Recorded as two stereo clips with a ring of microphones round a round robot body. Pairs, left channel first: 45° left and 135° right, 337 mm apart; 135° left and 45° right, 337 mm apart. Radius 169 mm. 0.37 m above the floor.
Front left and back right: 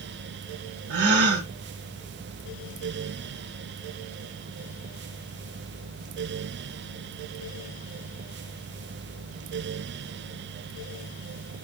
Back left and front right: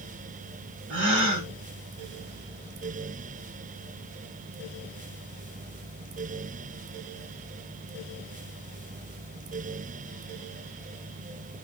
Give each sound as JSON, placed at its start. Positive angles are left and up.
{"t": 0.9, "sound": "a gasp", "azimuth_deg": -95, "distance_m": 1.4}